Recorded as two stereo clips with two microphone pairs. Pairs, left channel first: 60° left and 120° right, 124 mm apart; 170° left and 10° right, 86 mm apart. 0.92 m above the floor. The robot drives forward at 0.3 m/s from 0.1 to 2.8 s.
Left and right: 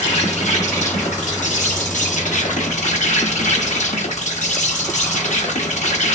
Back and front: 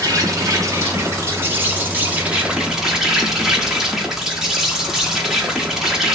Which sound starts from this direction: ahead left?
An insect, at 0.0 s.